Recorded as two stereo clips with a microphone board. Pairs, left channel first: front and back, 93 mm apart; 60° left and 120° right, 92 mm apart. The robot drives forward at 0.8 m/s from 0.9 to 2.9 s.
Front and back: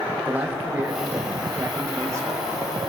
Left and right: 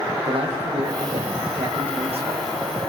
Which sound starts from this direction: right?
A man speaking, at 0.2 s.